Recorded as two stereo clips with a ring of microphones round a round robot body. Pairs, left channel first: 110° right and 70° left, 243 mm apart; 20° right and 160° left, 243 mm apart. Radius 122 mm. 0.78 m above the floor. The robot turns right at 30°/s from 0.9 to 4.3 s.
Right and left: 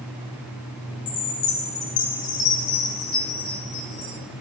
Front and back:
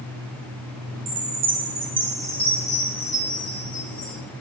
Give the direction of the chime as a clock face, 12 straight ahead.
5 o'clock.